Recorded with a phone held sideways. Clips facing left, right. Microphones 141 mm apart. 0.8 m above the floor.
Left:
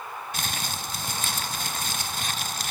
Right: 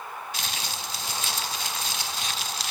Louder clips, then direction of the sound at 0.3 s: Left 2 dB; 50° left (ahead or behind).